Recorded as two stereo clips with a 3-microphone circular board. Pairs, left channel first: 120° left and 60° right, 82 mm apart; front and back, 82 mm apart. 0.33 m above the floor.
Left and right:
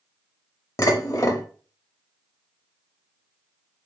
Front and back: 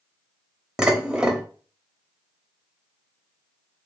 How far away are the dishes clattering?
About 0.7 m.